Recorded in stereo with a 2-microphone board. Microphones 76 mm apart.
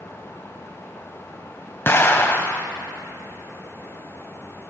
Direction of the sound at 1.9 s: 30° left (ahead or behind).